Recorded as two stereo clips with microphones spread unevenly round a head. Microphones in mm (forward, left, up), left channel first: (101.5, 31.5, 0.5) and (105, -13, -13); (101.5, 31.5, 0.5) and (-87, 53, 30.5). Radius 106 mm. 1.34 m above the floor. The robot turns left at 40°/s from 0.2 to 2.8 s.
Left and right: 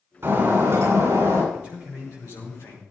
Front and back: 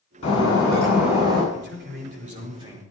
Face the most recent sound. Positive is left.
turn(degrees=100)